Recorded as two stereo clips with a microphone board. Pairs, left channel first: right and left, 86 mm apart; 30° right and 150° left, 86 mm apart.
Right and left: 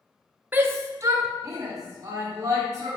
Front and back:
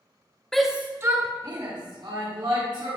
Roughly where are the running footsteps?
No running footsteps in this recording.